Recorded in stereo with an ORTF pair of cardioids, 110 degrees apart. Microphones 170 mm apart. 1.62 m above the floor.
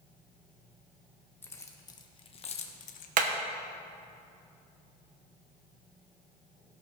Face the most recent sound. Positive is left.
turn(degrees=-55)